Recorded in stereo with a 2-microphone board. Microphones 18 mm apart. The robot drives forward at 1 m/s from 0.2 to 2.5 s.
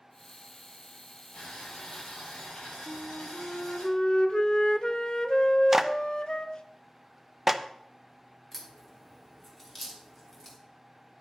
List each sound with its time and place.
1.3 s boiling: 80° left, 6.5 m; by 3.9 s 90° left, 6.5 m
2.9 s a flute: 50° left (ahead or behind), 0.7 m
5.7 s a clap: 20° right (ahead or behind), 0.7 m
8.5 s a crack: 15° left (ahead or behind), 3 m